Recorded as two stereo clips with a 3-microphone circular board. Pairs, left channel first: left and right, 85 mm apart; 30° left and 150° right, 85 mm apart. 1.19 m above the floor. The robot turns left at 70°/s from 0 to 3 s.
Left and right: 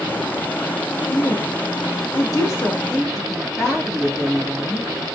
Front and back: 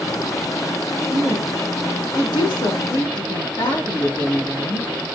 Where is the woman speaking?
135° left, 2 m; by 4.9 s straight ahead, 2 m.